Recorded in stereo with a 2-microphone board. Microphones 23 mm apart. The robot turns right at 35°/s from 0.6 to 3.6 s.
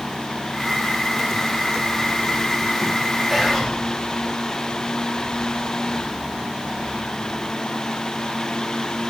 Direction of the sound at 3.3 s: 5° left (ahead or behind).